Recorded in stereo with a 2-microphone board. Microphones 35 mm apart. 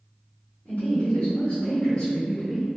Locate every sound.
0.7 s a woman speaking: 55° left (ahead or behind), 1.2 m; by 2.7 s centre (ahead or behind), 0.7 m